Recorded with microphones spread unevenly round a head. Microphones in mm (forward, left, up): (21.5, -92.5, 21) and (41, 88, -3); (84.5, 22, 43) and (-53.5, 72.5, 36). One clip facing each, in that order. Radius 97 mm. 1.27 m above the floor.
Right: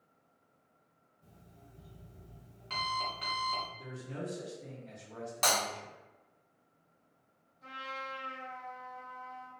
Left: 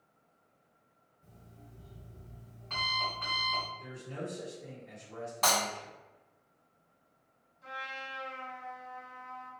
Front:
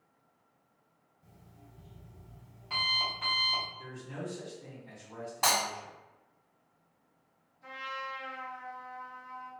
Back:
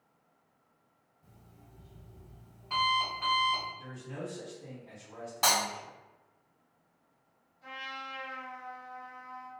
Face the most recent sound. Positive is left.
turn(degrees=-125)